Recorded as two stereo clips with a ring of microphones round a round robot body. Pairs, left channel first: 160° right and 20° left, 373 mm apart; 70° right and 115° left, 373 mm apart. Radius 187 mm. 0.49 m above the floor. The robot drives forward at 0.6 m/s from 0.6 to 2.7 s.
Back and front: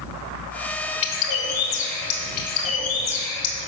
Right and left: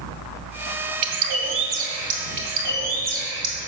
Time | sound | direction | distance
1.0 | a bird | 145° left | 0.9 m